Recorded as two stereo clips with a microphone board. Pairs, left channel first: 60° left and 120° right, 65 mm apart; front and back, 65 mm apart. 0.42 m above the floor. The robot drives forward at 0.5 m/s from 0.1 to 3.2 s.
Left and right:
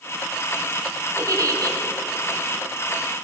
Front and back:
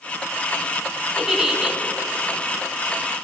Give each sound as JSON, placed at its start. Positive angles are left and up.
{"t": 1.2, "sound": "a giggle", "azimuth_deg": -95, "distance_m": 2.0}